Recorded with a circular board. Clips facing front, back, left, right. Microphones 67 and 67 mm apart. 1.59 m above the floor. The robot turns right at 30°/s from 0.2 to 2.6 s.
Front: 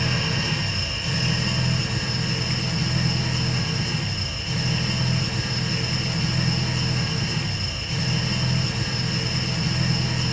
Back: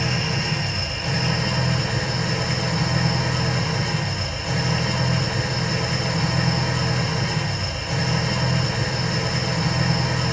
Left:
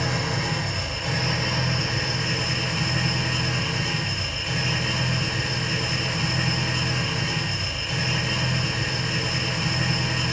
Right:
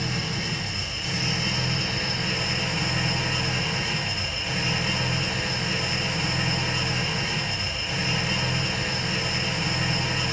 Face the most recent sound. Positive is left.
turn(degrees=180)